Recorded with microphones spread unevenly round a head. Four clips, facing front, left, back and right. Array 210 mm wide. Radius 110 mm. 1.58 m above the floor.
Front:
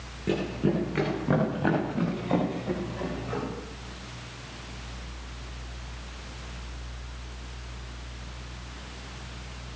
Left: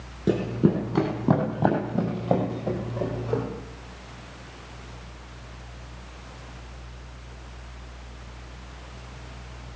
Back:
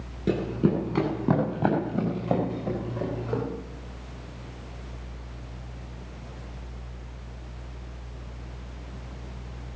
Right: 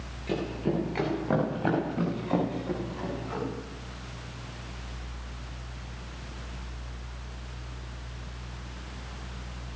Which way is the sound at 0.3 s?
110° left.